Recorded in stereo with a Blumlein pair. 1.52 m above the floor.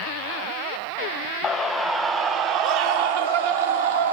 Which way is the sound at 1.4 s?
20° left.